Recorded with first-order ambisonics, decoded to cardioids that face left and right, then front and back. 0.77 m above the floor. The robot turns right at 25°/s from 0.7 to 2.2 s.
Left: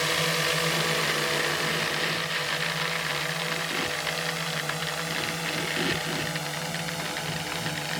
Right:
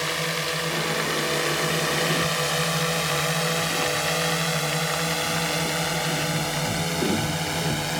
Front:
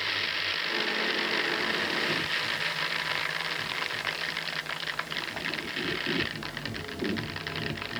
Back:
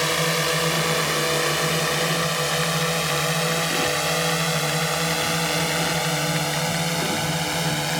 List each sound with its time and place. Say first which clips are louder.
0.0 s a drone: left 1 dB, back 7 dB; straight behind; by 8.0 s 165° right